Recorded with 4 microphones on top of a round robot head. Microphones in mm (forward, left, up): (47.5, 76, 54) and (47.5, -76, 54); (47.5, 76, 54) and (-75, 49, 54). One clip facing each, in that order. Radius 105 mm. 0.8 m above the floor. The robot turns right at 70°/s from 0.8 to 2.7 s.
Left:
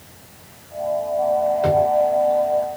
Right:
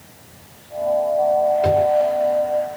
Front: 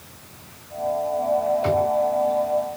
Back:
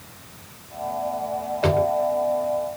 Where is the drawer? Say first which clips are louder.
Right 1 dB, even; 175° right, 1.5 m; by 1.9 s 155° right, 1.5 m.